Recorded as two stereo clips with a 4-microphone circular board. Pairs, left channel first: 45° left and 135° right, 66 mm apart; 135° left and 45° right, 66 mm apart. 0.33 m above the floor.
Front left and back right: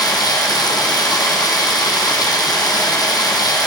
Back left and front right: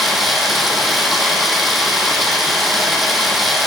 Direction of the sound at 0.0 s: 45° left.